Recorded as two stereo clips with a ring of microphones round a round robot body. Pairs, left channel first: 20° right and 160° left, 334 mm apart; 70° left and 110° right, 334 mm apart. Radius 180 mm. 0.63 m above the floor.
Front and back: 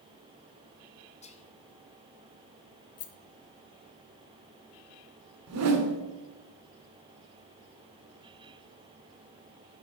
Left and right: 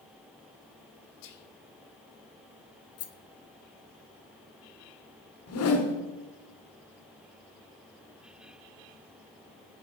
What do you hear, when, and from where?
1.2 s whispering: 50° left, 1.4 m
3.0 s a rattle: 25° left, 0.6 m
5.5 s a whoosh: 115° left, 1.5 m